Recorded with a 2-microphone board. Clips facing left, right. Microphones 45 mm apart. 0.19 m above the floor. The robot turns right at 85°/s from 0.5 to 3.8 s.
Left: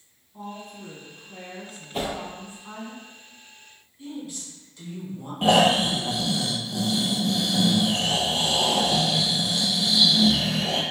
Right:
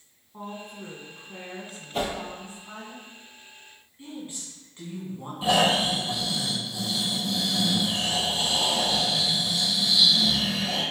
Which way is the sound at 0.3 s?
105° right.